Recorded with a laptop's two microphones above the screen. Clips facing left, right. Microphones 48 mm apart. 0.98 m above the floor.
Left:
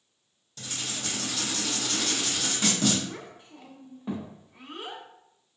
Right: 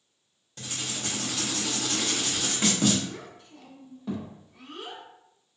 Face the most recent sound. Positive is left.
turn(degrees=25)  # may be behind; listen again after turning